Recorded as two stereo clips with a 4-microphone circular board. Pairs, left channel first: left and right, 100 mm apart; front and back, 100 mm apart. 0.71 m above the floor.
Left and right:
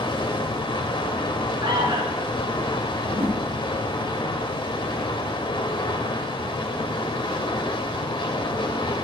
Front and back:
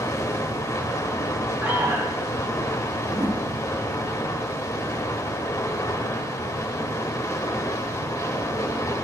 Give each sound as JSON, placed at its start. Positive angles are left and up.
{"t": 0.0, "sound": "running water", "azimuth_deg": 55, "distance_m": 1.6}
{"t": 1.6, "sound": "an alarm", "azimuth_deg": -110, "distance_m": 2.5}
{"t": 3.0, "sound": "a whoosh", "azimuth_deg": -130, "distance_m": 1.8}